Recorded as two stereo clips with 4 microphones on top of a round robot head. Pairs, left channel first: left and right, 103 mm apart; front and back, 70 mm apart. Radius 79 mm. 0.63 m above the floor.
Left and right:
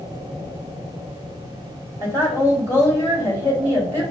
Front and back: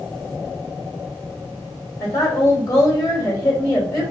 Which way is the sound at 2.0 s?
30° left.